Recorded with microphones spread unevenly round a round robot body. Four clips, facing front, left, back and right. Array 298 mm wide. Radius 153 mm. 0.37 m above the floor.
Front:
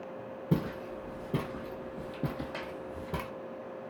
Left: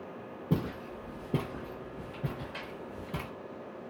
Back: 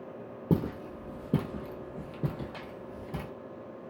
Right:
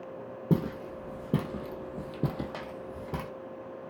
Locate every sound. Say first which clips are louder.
0.5 s footsteps: right 4 dB, back 3 dB; 155° right, 1.1 m; by 3.3 s 45° right, 1.1 m